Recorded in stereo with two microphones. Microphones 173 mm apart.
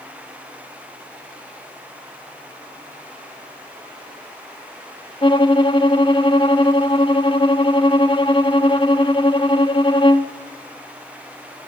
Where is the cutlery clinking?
I don't hear cutlery clinking.